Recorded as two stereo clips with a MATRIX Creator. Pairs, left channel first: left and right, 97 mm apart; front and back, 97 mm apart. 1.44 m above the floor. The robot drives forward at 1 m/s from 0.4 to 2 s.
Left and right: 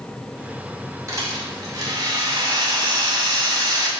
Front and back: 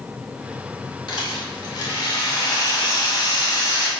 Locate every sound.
1.1 s a rattle: 35° right, 3.5 m; by 3.9 s 45° right, 3 m